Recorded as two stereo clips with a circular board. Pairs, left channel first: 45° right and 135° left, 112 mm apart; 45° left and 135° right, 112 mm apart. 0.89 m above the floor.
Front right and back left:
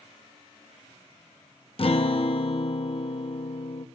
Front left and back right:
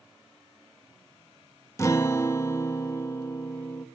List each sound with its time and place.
1.8 s a guitar: 15° right, 1.0 m